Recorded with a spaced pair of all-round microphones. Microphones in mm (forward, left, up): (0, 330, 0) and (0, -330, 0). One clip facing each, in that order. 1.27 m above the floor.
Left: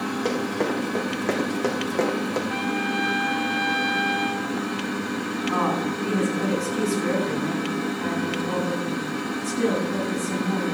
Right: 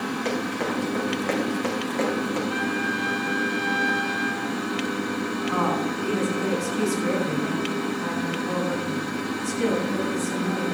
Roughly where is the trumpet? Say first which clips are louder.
Left 1 dB; left.